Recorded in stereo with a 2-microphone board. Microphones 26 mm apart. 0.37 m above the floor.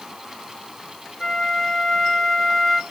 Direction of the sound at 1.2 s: 15° left (ahead or behind).